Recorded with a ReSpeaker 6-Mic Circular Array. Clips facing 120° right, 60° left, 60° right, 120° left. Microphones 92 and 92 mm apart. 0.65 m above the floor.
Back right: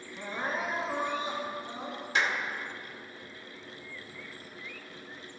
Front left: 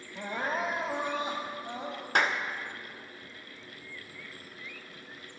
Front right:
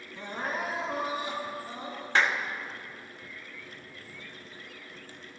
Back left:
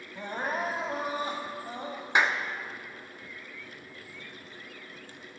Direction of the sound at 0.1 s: 80° left.